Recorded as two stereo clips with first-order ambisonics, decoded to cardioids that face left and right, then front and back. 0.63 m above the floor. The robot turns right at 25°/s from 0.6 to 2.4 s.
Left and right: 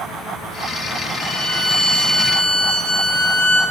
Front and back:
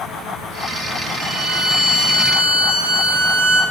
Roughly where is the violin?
Behind left.